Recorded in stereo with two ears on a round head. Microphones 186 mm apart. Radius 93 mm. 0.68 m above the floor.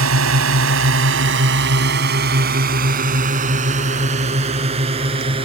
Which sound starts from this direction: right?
A drone, at 0.0 s.